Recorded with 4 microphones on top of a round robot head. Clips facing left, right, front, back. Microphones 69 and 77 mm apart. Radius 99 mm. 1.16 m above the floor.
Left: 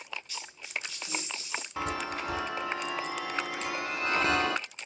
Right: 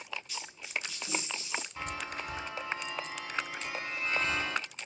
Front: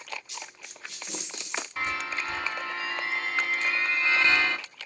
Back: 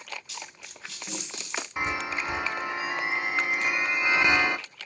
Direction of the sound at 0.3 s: 175° right.